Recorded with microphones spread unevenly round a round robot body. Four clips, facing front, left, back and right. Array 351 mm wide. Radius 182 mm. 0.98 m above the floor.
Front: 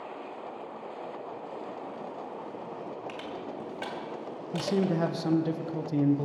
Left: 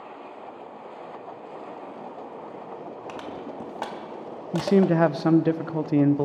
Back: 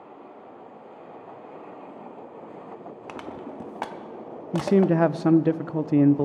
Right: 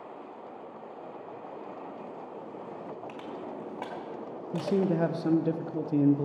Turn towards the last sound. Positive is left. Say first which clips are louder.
# left 7 dB, back 8 dB
turn(degrees=105)